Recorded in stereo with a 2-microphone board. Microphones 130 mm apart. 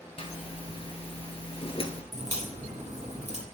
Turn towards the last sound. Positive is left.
turn(degrees=-60)  # may be behind; listen again after turning